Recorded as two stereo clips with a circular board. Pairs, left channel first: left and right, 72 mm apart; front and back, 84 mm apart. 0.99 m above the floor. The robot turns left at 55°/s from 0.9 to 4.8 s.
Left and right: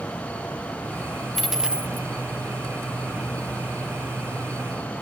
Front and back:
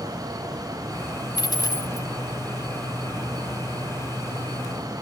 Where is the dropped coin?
5° left, 0.8 m; by 2.1 s 35° right, 0.8 m.